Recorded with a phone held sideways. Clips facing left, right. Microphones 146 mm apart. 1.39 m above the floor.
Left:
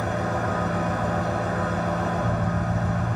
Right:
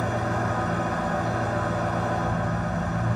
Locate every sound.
0.0 s an engine running: 75° left (ahead or behind), 0.9 m